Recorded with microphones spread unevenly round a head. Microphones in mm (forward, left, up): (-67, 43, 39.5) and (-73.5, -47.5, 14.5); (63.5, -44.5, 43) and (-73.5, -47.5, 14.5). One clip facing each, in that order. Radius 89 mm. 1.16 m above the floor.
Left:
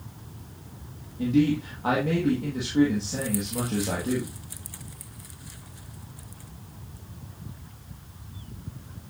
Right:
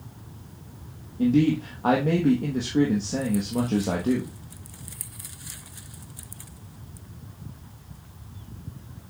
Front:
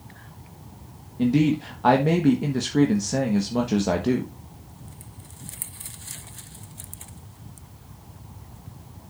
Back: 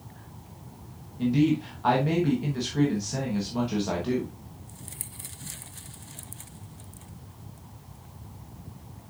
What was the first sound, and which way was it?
A man speaking, 35° right.